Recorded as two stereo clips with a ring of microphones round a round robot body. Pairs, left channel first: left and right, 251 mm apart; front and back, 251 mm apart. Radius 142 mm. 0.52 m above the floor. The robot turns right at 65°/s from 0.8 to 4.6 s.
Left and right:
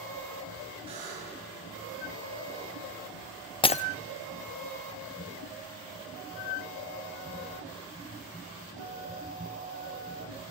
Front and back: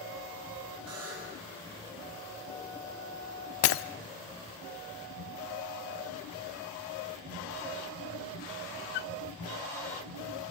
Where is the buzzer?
160° right, 7 m; by 1.4 s 125° right, 7 m.